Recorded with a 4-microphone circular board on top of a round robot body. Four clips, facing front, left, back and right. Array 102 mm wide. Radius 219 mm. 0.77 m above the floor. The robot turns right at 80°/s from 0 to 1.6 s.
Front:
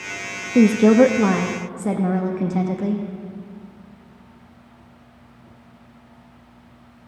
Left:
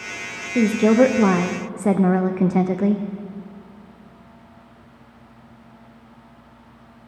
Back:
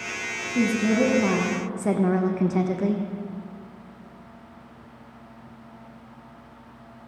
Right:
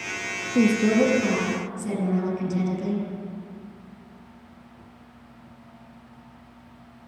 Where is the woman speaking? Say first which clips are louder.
Left 4 dB, front 9 dB; 10° left, 0.6 m; by 3.0 s 95° left, 0.6 m.